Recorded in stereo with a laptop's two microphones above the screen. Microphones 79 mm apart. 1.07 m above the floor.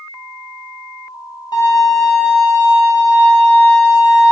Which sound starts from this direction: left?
A violin, at 1.5 s.